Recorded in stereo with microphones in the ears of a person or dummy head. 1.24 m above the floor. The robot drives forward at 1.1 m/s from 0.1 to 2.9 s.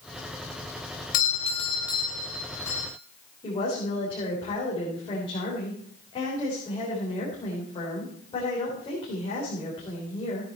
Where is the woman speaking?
25° left (ahead or behind), 4 m.